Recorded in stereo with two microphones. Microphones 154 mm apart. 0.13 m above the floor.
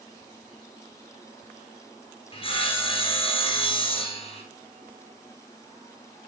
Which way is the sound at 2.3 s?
35° left (ahead or behind).